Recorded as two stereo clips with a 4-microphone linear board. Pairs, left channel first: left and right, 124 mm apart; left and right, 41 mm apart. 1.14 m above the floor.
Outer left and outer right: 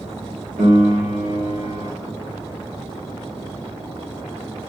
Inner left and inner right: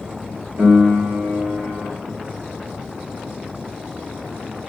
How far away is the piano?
About 2.5 m.